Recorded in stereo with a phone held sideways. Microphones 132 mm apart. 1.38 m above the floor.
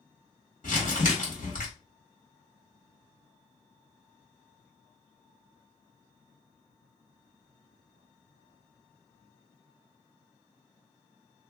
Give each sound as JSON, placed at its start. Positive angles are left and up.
{"t": 0.6, "sound": "crumpling", "side_deg": 85, "distance_m": 1.5}